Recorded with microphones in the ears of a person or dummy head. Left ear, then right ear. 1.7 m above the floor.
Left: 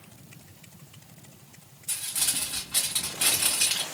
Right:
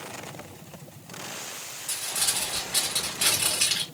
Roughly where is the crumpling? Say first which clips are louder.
Right 2 dB; centre.